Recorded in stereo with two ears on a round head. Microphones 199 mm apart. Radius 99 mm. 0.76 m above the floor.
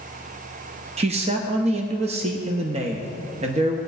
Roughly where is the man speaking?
Right.